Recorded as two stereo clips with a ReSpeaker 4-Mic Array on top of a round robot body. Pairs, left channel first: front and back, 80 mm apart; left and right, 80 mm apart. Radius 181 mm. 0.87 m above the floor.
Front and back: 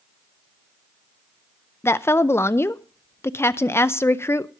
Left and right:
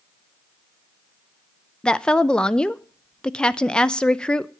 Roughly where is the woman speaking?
Ahead.